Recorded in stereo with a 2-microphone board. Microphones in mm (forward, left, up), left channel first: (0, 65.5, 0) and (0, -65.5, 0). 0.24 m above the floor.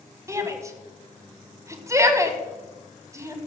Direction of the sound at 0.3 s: 20° right (ahead or behind).